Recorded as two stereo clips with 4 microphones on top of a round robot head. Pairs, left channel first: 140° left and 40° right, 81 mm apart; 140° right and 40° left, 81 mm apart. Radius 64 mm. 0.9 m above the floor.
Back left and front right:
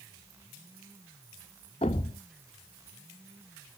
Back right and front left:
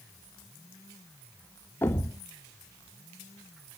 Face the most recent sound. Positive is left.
turn(degrees=150)